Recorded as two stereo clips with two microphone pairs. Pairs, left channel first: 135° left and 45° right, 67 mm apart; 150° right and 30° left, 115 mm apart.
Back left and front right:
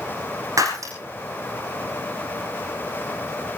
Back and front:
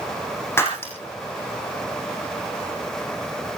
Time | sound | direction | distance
0.6 | breaking glass | 80° right | 5.5 m